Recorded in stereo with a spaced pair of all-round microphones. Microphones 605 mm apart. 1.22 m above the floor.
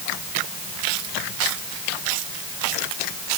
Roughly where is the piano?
No piano in this recording.